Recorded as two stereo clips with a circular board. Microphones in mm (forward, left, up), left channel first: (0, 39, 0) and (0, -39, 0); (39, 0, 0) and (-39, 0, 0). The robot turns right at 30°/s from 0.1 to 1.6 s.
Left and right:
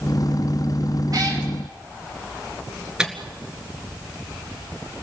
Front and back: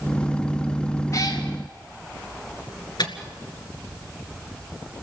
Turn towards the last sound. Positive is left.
turn(degrees=-10)